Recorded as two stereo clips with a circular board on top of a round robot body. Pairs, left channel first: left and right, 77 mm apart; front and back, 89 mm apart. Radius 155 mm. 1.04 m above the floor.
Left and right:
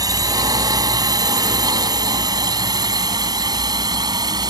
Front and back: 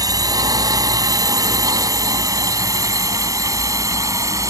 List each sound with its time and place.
0.0 s a drone: 130° right; by 4.5 s 125° right